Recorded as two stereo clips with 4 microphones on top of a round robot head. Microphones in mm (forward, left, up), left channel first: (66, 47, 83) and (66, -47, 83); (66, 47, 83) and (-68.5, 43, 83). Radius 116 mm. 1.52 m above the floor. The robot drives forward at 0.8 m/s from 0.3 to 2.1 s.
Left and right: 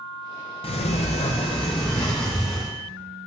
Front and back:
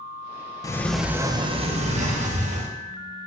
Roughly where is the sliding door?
Left.